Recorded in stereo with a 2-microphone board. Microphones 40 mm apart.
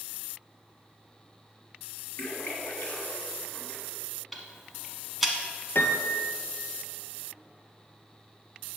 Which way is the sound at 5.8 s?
85° left.